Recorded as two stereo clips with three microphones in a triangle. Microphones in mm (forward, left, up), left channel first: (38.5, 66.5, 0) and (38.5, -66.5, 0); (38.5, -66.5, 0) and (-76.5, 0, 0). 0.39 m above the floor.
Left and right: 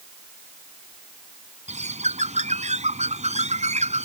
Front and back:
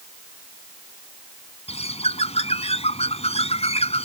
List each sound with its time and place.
1.7 s a bird: 65° right